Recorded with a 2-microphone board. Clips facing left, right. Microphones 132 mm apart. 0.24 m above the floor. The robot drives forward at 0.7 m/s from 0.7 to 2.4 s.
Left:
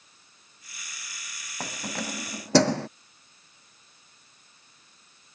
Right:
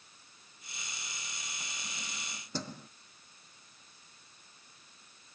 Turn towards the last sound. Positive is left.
turn(degrees=70)  # may be behind; listen again after turning